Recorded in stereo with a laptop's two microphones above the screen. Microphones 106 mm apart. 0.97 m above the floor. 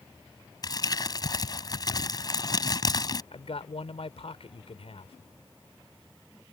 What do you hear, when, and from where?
0.6 s crumpling: 40° left (ahead or behind)
3.3 s a man speaking: 70° left (ahead or behind)